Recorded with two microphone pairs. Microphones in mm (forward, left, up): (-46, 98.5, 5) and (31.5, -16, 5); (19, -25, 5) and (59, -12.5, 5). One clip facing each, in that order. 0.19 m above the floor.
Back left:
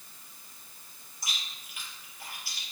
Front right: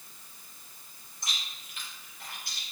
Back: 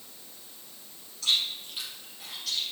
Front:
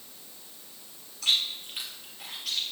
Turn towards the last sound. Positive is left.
turn(degrees=40)